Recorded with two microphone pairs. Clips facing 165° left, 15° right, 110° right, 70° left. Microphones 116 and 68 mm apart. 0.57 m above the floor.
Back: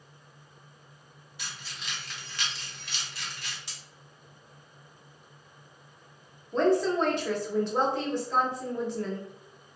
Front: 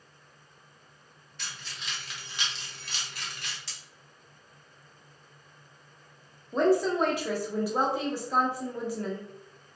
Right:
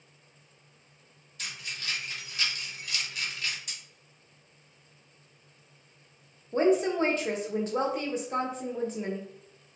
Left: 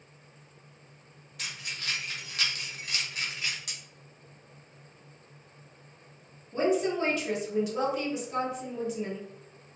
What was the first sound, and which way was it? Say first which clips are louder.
Keys jangling: even, left 1 dB; 90° left.